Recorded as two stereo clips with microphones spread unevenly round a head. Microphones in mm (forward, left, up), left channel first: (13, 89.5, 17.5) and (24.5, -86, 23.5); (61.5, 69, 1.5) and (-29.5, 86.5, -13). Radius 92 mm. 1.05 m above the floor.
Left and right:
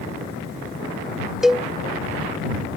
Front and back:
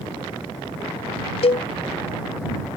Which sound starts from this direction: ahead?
A cowbell, at 1.4 s.